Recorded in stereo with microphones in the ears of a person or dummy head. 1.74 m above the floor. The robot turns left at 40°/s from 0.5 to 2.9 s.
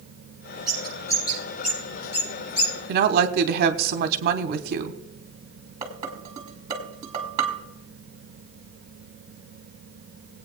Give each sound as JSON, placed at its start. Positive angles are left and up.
{"t": 0.7, "sound": "a bird", "side_deg": -5, "distance_m": 5.5}
{"t": 2.9, "sound": "a woman speaking", "side_deg": -50, "distance_m": 1.1}
{"t": 5.8, "sound": "dishes clattering", "side_deg": -20, "distance_m": 1.8}